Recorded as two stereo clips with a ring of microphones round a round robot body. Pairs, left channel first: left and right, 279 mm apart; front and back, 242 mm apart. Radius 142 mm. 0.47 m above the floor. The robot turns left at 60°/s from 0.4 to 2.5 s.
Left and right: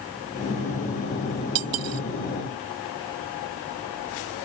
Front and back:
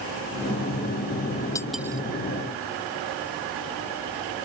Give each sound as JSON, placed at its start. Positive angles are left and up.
{"t": 1.6, "sound": "cutlery clinking", "azimuth_deg": -80}